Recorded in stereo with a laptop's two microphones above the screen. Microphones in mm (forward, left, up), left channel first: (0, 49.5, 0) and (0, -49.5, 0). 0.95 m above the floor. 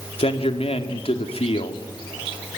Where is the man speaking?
75° left (ahead or behind), 2.5 m.